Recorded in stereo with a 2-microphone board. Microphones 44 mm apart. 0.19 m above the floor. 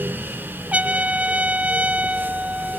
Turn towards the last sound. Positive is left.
turn(degrees=-35)  # may be behind; listen again after turning